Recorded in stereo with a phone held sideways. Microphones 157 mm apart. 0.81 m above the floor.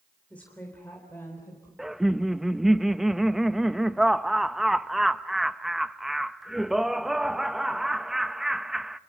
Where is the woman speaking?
10° left (ahead or behind), 3.5 m; by 1.7 s 20° left (ahead or behind), 4 m.